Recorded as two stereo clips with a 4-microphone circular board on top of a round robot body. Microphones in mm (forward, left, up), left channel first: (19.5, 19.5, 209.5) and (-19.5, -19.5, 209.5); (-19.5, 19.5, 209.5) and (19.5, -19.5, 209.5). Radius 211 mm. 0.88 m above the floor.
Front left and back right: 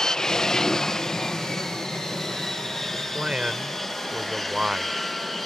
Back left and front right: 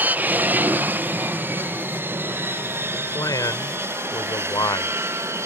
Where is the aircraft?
25° right; by 5.5 s 40° right.